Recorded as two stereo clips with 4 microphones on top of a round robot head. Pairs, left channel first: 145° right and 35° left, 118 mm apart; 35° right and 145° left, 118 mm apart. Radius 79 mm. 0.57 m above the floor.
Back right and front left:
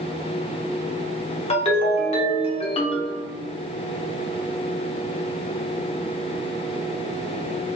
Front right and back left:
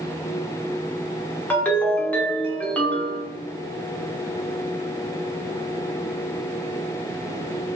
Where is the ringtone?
110° right, 0.9 m.